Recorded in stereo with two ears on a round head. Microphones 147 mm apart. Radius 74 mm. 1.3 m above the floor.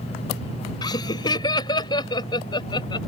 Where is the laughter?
25° left (ahead or behind); by 3.0 s 30° left (ahead or behind).